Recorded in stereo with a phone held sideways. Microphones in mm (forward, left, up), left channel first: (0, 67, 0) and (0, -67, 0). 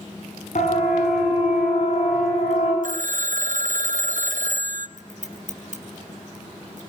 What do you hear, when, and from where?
0.6 s a siren: 65° left (ahead or behind), 9 m; by 2.7 s 55° left (ahead or behind), 8 m
2.8 s a phone ringing: 70° right (ahead or behind), 0.8 m
5.0 s scissors: 75° right (ahead or behind), 3.5 m